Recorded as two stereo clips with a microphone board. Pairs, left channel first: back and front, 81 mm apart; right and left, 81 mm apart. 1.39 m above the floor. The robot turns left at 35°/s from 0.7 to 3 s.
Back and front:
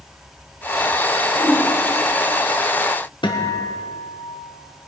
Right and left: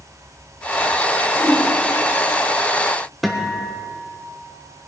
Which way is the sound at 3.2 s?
Straight behind.